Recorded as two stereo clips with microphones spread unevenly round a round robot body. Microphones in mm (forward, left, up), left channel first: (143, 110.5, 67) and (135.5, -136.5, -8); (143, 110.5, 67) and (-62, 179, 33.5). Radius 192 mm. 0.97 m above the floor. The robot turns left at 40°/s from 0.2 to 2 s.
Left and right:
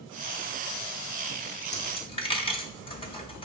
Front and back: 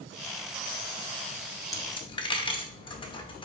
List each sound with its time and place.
1.7 s a dropped coin: 50° left, 0.9 m; by 3.5 s 35° left, 0.9 m